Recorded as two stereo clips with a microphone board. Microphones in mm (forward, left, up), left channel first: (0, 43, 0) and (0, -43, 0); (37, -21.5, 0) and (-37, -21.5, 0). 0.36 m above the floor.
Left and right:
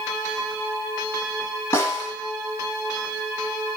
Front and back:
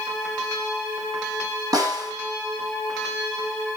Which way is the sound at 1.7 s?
150° left.